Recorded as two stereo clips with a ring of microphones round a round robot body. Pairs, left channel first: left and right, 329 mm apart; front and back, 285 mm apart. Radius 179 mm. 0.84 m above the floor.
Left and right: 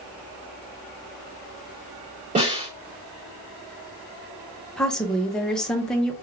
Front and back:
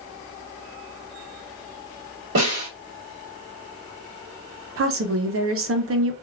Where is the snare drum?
160° right, 1.8 m.